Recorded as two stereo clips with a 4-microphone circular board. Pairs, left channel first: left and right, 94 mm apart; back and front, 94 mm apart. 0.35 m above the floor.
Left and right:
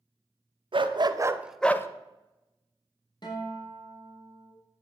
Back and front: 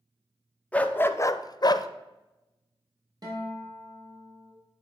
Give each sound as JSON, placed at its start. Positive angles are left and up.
{"t": 0.7, "sound": "a dog barking", "azimuth_deg": -105, "distance_m": 0.8}
{"t": 3.2, "sound": "a guitar", "azimuth_deg": 50, "distance_m": 3.0}